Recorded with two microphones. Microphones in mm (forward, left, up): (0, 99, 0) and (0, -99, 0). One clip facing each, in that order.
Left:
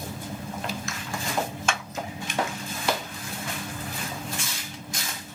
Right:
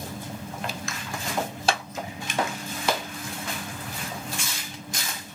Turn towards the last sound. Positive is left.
turn(degrees=-30)  # may be behind; listen again after turning